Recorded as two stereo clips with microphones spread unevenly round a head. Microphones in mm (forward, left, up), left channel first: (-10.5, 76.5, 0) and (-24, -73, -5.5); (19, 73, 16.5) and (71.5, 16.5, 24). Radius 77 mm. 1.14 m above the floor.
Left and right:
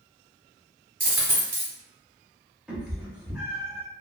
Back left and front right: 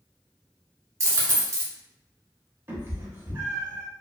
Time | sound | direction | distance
1.0 | a dropped coin | 20° right | 1.0 m
2.7 | a cat meowing | 10° right | 0.7 m